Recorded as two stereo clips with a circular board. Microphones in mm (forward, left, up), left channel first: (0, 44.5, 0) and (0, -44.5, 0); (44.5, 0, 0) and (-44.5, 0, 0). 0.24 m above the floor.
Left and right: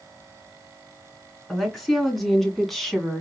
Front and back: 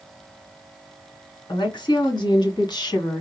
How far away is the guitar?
I don't hear a guitar.